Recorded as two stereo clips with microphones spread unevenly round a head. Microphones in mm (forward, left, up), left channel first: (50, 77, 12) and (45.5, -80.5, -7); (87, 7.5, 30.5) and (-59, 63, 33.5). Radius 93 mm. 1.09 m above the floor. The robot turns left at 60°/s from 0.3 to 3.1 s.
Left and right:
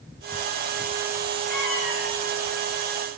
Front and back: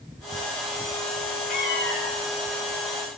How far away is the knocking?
I don't hear knocking.